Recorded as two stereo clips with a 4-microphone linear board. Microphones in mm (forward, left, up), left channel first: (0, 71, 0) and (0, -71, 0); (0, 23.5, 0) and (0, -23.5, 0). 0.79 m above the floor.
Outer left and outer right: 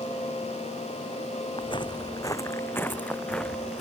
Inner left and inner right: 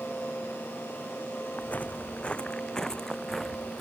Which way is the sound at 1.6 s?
35° left (ahead or behind).